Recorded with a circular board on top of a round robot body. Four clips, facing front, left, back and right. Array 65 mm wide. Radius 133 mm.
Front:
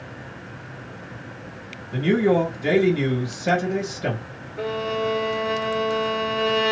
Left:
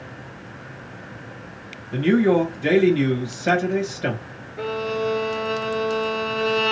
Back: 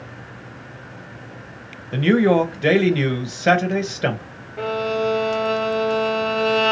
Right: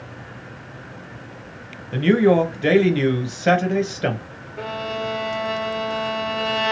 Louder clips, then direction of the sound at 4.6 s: Left 2 dB, back 3 dB; 155° right.